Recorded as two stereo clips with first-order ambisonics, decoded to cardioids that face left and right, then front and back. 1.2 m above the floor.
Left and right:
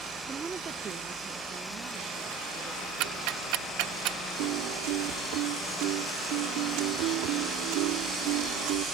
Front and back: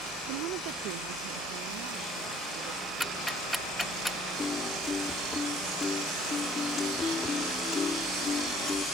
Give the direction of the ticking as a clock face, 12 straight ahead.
3 o'clock.